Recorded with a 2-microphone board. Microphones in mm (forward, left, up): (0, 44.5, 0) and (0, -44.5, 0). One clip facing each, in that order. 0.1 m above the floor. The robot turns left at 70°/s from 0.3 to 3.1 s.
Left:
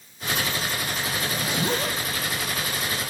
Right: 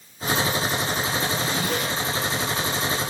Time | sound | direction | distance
1.2 | a zipper | 5° right (ahead or behind) | 1.2 m